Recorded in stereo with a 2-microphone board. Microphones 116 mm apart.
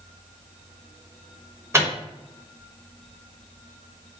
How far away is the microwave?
About 0.7 m.